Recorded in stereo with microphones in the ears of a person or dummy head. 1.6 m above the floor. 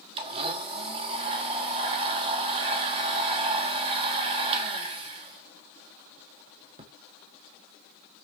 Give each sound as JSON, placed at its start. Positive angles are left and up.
{"t": 0.2, "sound": "a blender", "side_deg": -25, "distance_m": 1.5}